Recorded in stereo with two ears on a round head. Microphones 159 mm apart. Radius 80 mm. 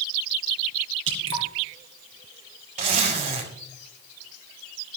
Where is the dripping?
75° right (ahead or behind), 3 m.